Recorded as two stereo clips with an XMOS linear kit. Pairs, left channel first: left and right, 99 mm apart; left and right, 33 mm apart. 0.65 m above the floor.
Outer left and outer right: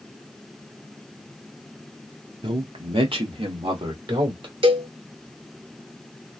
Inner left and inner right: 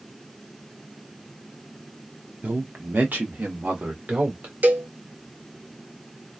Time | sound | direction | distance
2.4 | a man speaking | 55° right (ahead or behind) | 1.0 m
4.6 | a cowbell | 55° right (ahead or behind) | 0.6 m